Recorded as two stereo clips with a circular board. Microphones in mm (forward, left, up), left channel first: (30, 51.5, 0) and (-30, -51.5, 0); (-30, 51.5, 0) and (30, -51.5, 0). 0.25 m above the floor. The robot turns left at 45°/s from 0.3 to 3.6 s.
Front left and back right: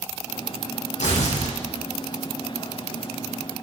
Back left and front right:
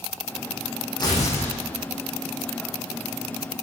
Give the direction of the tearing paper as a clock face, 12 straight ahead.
10 o'clock.